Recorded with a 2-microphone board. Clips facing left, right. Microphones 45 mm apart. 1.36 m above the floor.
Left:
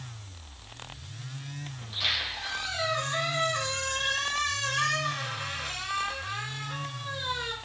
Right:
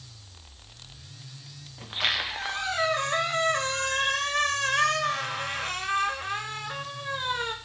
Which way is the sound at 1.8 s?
45° right (ahead or behind).